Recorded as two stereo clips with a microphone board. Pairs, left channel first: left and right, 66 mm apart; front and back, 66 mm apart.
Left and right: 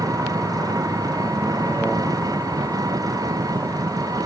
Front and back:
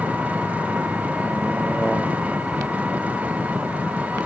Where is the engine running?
110° right.